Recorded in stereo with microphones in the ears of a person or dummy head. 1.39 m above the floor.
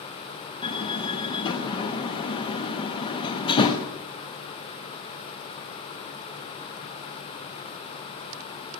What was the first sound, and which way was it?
A door slam, 25° left (ahead or behind).